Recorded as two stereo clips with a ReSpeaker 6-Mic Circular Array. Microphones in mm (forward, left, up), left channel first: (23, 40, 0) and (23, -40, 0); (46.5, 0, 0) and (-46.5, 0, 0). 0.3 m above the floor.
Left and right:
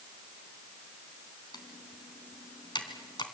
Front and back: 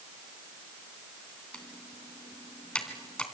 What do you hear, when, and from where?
1.5 s typing on a keyboard: 75° left, 3 m